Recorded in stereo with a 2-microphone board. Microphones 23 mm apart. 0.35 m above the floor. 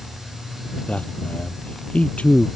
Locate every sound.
0.9 s a man speaking: 70° left (ahead or behind); by 2.5 s 75° left (ahead or behind)